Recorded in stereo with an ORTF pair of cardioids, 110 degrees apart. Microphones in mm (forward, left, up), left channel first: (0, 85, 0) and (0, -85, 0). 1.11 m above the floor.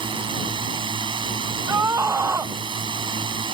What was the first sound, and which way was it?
A drone, 30° right.